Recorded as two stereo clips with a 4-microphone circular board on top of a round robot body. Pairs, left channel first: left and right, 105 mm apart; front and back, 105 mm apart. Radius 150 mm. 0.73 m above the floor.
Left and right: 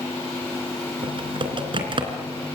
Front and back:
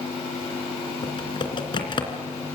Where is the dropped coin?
I don't hear a dropped coin.